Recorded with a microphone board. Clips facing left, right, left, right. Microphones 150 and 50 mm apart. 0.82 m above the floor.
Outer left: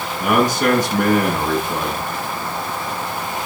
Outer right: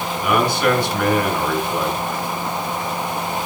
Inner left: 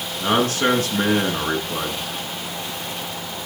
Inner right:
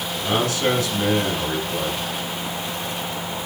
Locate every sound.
0.2 s a man speaking: 45° left (ahead or behind), 8 m